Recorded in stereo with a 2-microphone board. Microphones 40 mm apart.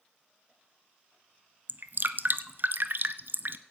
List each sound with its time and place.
1.7 s dripping: 55° right (ahead or behind), 0.6 m